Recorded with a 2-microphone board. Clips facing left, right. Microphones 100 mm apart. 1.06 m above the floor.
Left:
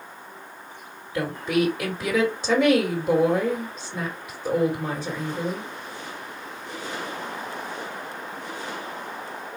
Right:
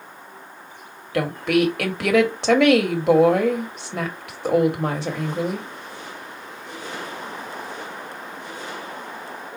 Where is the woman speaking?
70° right (ahead or behind), 1.5 m.